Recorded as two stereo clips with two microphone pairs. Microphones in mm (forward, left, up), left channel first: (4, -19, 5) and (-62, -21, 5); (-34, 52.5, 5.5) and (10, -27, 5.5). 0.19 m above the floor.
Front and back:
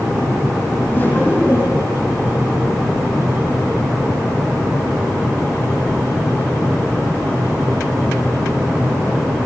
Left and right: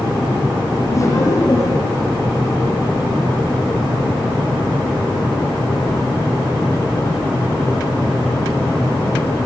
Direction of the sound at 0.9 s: 65° left.